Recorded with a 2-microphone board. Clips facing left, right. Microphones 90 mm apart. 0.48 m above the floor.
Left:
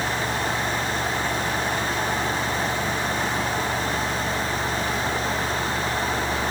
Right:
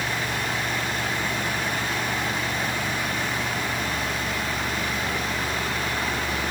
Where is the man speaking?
No man speaking in this recording.